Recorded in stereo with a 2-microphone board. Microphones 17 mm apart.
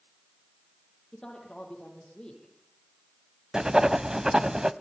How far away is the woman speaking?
About 10 m.